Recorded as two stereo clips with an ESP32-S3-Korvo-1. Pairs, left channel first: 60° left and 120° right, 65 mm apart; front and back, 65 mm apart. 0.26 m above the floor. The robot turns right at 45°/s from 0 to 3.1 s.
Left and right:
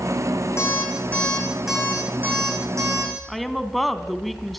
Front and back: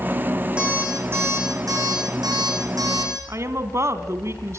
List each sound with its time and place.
0.6 s an alarm clock: 105° left, 9.5 m; by 3.1 s 145° right, 9.5 m
3.3 s a woman speaking: 150° left, 2.0 m